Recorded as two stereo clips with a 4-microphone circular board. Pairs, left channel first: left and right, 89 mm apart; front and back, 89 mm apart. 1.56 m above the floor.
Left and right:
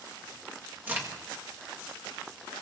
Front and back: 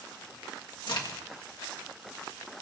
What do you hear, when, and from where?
0.9 s a crack: 25° right, 1.7 m